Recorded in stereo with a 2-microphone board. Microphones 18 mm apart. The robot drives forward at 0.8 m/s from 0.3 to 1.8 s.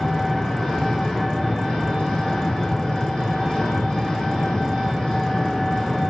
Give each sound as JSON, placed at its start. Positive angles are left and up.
{"t": 0.0, "sound": "an engine running", "side_deg": 45, "distance_m": 4.0}